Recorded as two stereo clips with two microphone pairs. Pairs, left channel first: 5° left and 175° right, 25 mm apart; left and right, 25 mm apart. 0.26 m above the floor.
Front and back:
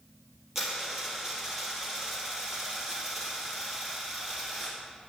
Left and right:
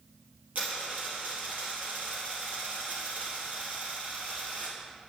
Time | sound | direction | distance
0.6 | a dropped coin | 95° right | 3 m